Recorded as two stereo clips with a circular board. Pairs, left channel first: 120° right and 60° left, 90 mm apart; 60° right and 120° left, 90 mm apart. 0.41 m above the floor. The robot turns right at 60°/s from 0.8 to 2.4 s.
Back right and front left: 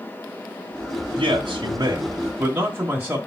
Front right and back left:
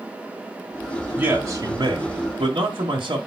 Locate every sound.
1.1 s a man speaking: 55° left, 1.7 m; by 3.2 s 130° left, 1.7 m